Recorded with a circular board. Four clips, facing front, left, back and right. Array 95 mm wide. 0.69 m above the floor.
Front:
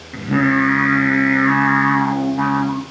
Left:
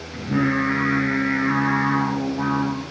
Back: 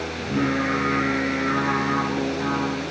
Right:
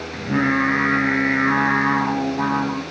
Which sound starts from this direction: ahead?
Singing, at 0.1 s.